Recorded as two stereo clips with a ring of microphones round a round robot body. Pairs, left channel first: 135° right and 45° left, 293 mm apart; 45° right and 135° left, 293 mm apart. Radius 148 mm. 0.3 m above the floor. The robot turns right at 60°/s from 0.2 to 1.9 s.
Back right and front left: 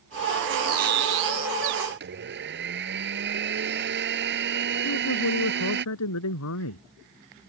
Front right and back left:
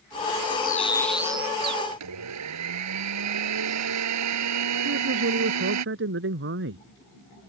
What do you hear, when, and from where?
0.6 s a bird: 10° left; by 1.8 s 85° left
1.9 s a blender: 100° left
4.8 s a man speaking: 175° right